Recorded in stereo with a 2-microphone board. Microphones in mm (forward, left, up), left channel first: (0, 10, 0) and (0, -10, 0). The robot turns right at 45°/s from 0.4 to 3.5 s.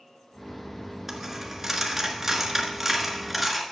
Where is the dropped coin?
20° right (ahead or behind), 1.6 m; by 3.6 s 5° right (ahead or behind), 1.6 m.